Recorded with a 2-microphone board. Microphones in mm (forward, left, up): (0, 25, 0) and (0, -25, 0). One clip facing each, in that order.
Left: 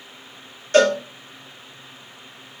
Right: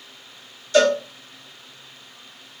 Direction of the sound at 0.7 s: 45° left (ahead or behind).